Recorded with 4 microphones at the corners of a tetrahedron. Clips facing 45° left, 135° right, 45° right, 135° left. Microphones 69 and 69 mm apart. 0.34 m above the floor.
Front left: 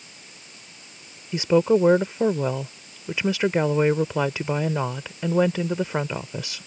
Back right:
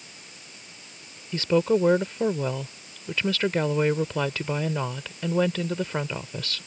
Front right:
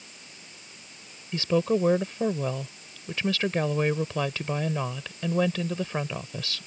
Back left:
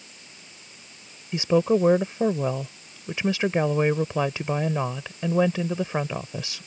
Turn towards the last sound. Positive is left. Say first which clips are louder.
# front left 3 dB, back left 4 dB
turn(degrees=100)